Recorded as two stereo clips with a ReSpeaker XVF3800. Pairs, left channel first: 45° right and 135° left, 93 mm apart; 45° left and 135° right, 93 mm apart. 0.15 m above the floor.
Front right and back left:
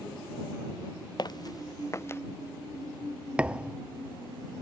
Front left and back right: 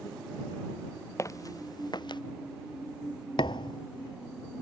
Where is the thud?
60° left.